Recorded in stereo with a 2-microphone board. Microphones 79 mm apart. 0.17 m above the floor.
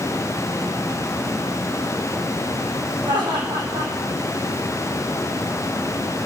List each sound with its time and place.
3.0 s laughter: 75° right (ahead or behind), 8 m